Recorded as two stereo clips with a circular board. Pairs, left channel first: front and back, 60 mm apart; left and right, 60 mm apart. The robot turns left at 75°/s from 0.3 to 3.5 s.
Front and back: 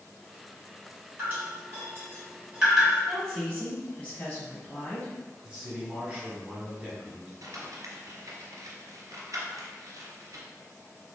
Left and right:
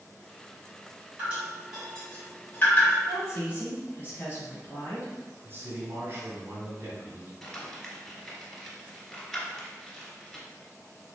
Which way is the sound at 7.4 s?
175° left.